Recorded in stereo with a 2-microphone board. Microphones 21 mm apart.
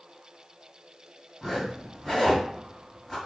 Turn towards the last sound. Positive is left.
turn(degrees=20)  # may be behind; listen again after turning